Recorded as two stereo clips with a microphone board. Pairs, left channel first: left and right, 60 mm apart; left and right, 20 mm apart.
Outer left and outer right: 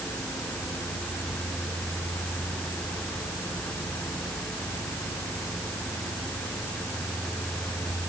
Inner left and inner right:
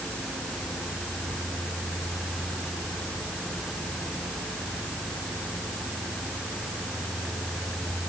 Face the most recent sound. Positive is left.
No sound to turn to.